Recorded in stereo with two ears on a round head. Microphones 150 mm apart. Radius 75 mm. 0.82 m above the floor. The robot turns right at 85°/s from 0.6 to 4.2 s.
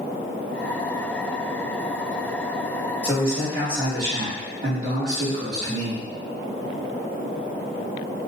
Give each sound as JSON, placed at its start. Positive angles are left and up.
{"t": 3.0, "sound": "a man speaking", "azimuth_deg": -170, "distance_m": 1.1}